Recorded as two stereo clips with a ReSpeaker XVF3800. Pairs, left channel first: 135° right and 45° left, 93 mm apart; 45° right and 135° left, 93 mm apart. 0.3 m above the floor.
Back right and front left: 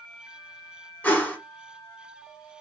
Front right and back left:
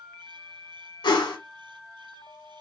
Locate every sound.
1.0 s a whoosh: 65° right, 1.1 m